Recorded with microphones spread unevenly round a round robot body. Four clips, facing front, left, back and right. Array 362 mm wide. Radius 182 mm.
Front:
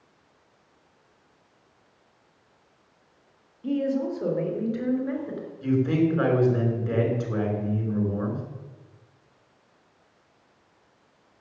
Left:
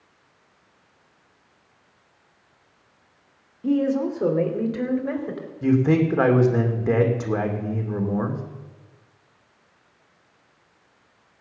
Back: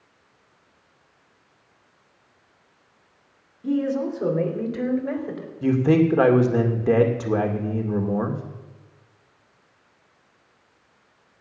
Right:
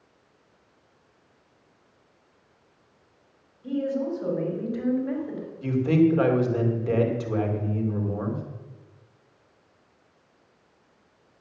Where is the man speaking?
145° left, 2.5 m.